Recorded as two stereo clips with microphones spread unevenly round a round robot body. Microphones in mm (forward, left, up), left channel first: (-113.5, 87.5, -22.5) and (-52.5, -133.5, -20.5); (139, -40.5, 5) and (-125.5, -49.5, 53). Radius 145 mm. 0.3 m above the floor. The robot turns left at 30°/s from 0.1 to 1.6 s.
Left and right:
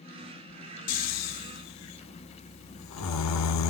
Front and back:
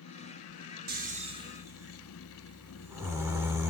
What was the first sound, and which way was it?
Snoring, 125° left.